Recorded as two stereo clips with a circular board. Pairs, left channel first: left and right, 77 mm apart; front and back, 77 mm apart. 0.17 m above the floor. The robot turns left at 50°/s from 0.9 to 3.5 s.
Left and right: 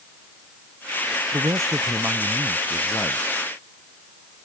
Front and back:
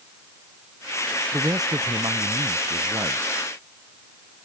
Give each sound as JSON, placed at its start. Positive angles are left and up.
{"t": 1.3, "sound": "a man speaking", "azimuth_deg": -125}